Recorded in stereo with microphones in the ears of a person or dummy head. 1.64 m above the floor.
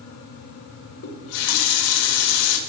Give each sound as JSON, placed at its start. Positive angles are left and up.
{"t": 1.0, "sound": "a running tap", "side_deg": 65, "distance_m": 1.7}